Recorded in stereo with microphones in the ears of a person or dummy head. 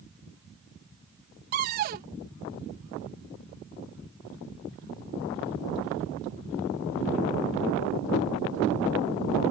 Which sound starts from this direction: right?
A cupboard door, at 1.5 s.